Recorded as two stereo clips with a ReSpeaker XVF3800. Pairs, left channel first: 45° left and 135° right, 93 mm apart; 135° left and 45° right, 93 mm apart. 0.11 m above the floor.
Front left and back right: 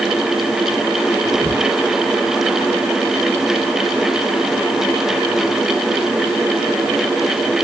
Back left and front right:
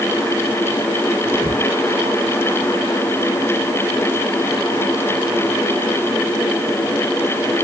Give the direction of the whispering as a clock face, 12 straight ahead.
1 o'clock.